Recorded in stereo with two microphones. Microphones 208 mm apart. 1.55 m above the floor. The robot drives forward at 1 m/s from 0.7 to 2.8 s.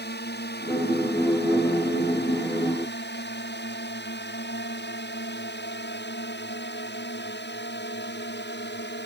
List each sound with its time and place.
0.0 s a drone: 55° left (ahead or behind); by 9.1 s 60° left (ahead or behind)